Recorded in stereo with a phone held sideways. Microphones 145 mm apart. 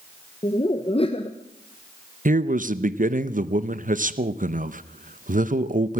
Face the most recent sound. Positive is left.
turn(degrees=-65)  # may be behind; listen again after turning